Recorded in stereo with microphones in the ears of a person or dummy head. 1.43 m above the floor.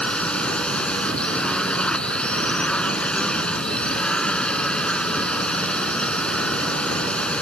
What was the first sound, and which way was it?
A drone, 10° left (ahead or behind).